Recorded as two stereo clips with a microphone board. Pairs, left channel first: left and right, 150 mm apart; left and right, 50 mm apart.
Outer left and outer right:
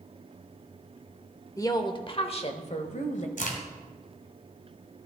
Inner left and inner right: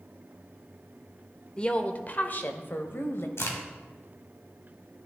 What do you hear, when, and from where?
1.6 s a woman speaking: 20° left (ahead or behind), 0.8 m; by 3.3 s 55° left (ahead or behind), 1.4 m
3.4 s a crack: 65° left (ahead or behind), 2 m